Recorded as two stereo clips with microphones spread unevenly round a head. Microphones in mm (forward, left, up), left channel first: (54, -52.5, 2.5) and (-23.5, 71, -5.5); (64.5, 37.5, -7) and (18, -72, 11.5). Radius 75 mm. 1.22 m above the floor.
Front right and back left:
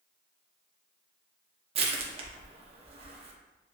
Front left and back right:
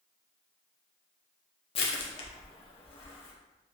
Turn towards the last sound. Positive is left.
turn(degrees=85)